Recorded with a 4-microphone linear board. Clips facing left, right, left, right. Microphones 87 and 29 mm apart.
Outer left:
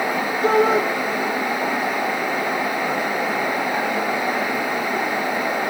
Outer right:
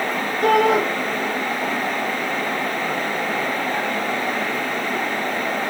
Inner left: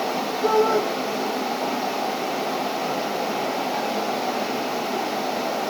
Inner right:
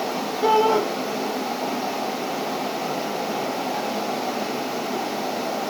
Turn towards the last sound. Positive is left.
turn(degrees=-65)  # may be behind; listen again after turning